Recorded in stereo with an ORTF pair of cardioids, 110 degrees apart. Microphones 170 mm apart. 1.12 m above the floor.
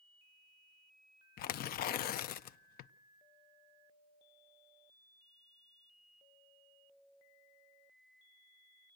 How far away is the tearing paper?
About 0.5 m.